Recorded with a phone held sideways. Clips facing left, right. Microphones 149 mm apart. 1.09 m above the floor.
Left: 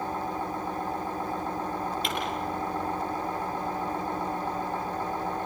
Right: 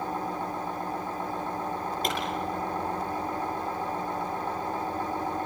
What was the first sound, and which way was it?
A pop, 45° right (ahead or behind).